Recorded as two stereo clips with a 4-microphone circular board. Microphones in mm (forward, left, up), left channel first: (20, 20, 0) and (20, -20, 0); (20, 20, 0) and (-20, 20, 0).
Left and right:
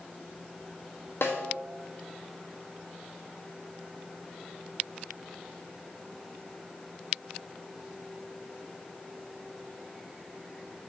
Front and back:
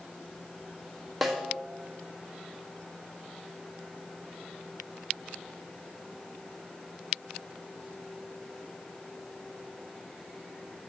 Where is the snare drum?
90° left, 1.6 m.